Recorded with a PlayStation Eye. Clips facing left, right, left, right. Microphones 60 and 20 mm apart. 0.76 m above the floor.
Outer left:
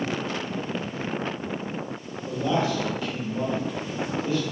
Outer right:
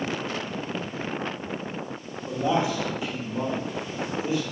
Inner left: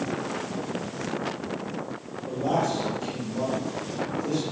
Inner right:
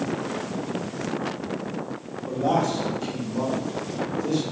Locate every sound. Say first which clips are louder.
2.3 s a man speaking: even, inner right 2 dB; 15° right (ahead or behind), 1.1 m